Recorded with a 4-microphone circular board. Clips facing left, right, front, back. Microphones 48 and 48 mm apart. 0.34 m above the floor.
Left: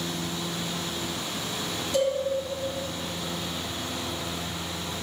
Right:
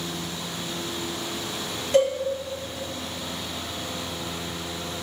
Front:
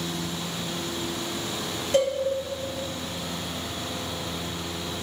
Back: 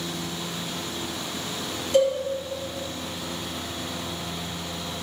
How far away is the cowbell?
About 3.5 m.